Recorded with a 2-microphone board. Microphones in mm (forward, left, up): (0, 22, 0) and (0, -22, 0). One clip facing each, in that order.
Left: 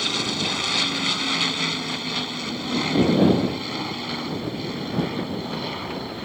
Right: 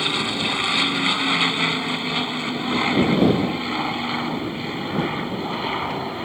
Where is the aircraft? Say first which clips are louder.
Right 3 dB; 20° right (ahead or behind); by 6.2 s 30° right (ahead or behind).